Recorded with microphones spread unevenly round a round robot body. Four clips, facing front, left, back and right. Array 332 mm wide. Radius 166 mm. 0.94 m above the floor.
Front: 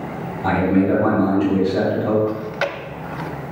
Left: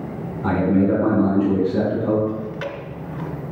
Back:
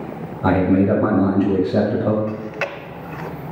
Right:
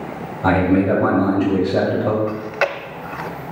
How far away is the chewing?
About 0.6 m.